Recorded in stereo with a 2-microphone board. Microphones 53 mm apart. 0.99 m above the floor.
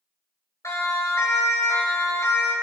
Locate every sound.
0.6 s a siren: 70° left (ahead or behind), 5 m